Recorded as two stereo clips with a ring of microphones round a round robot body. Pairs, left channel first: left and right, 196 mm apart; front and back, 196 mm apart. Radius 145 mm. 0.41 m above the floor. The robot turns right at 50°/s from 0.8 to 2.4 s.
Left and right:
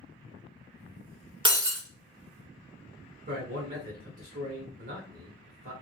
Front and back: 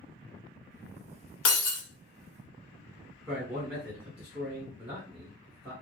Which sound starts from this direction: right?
A man speaking, at 3.3 s.